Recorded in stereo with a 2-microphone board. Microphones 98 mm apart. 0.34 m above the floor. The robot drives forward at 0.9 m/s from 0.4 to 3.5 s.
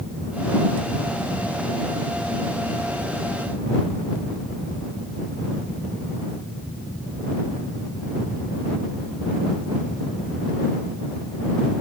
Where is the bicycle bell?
No bicycle bell in this recording.